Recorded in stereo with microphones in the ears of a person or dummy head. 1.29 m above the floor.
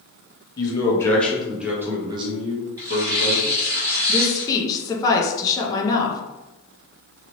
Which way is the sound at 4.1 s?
15° left (ahead or behind).